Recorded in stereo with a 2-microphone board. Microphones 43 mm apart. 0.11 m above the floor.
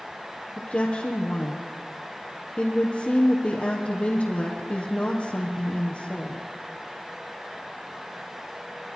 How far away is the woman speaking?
About 3 m.